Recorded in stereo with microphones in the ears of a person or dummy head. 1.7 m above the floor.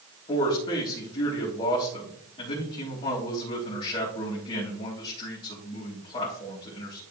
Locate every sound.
0.3 s a man speaking: 35° left (ahead or behind), 3.5 m